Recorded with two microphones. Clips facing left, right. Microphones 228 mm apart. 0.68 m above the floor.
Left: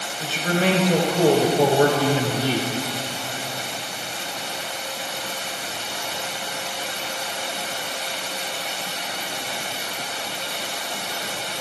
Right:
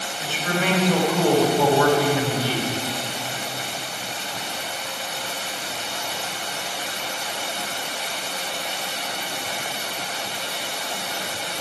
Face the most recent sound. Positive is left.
turn(degrees=20)  # may be behind; listen again after turning